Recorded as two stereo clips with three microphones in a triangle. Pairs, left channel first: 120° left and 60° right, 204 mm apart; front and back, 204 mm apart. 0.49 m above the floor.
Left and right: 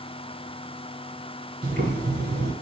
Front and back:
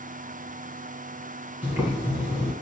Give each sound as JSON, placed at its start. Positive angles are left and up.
{"t": 1.6, "sound": "boiling", "azimuth_deg": -100, "distance_m": 1.5}